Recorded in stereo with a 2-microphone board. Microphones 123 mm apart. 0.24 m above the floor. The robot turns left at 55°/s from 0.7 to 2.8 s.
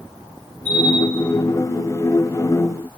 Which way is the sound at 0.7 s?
15° right (ahead or behind).